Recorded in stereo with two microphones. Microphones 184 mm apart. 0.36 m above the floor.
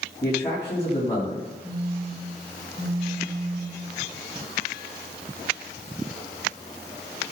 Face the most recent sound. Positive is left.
turn(degrees=-65)  # may be behind; listen again after turning